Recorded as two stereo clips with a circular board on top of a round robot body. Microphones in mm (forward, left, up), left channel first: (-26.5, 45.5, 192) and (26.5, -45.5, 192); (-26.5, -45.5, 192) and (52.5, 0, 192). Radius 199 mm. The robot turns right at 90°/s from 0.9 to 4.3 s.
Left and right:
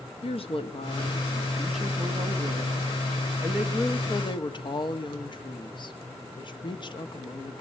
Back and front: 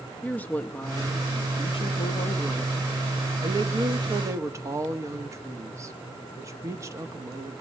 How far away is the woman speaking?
About 1.8 m.